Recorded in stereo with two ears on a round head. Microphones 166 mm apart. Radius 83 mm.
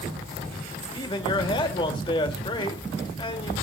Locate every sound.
0.9 s a man speaking: 30° left (ahead or behind), 1.5 m